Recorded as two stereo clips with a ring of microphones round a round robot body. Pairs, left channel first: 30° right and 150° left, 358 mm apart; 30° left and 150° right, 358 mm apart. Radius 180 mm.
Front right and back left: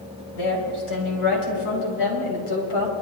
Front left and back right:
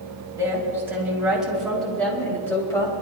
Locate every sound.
0.3 s a woman speaking: 70° right, 5 m; by 2.9 s 50° right, 4.5 m